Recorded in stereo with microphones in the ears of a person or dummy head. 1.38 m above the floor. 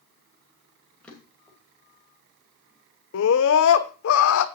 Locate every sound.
1.0 s a drawer: 10° left (ahead or behind), 2.5 m
3.1 s a scream: 65° left (ahead or behind), 0.8 m